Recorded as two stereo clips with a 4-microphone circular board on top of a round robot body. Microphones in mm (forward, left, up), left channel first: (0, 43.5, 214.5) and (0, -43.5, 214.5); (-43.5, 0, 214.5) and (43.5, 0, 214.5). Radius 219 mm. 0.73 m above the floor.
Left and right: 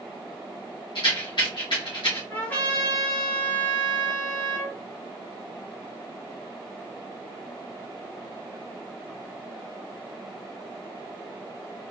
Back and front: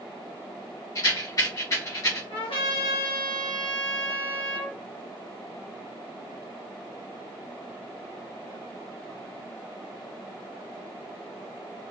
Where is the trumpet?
160° left, 1.5 m.